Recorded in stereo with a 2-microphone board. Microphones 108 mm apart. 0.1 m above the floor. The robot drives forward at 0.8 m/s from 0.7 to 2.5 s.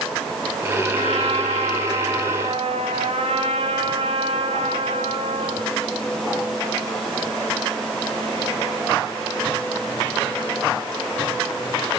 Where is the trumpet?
80° right, 5.5 m.